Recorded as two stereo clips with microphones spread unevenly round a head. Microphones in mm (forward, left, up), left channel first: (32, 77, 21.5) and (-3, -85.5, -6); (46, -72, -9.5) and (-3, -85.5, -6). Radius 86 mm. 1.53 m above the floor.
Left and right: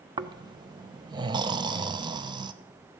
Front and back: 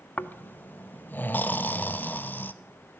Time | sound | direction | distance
0.2 | snoring | 35° right | 0.8 m